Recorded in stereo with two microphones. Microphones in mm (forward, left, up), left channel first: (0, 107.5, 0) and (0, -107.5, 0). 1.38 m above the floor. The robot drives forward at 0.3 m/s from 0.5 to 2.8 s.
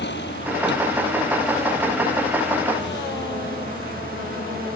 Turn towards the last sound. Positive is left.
turn(degrees=55)  # may be behind; listen again after turning